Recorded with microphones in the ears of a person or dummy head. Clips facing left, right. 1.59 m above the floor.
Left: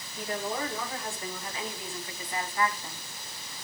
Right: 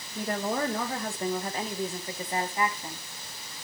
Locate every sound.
0.1 s a woman speaking: 55° right (ahead or behind), 2.5 m; by 3.1 s 10° right (ahead or behind), 1.4 m